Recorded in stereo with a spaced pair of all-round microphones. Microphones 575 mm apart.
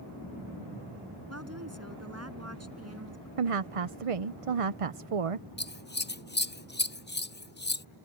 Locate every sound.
1.3 s a woman speaking: 25° right (ahead or behind)
3.4 s a woman speaking: 75° right (ahead or behind)
5.6 s scissors: 20° left (ahead or behind)